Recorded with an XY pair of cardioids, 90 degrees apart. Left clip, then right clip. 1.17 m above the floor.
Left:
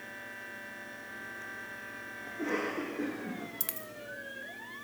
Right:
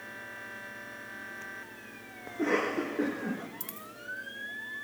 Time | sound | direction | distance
2.3 | a cough | 50° right | 1.3 m
3.6 | a dropped coin | 55° left | 1.6 m